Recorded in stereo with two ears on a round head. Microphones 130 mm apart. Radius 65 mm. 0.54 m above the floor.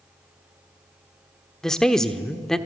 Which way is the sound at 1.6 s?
5° left (ahead or behind).